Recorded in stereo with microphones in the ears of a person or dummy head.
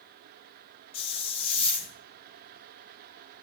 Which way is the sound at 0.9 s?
30° left (ahead or behind).